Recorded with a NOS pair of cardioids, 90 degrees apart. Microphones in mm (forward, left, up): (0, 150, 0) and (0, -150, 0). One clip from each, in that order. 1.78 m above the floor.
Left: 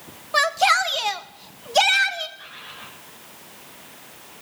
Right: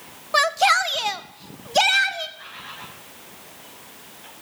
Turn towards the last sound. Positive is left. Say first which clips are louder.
# right 2 dB
turn(degrees=-15)